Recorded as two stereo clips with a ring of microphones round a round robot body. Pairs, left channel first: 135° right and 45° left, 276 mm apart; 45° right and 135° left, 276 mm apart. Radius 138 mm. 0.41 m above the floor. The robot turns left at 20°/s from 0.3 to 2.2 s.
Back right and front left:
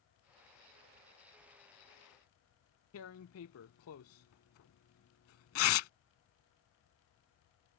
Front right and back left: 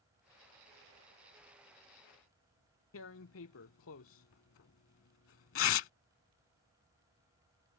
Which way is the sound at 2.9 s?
90° right.